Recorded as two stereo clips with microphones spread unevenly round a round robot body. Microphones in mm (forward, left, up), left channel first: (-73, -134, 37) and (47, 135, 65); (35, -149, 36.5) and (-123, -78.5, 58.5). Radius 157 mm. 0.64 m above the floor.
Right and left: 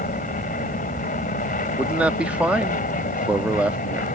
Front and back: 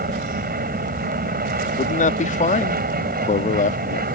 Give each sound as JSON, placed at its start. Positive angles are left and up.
{"t": 0.0, "sound": "an aircraft", "azimuth_deg": -175}
{"t": 1.8, "sound": "a man speaking", "azimuth_deg": -25}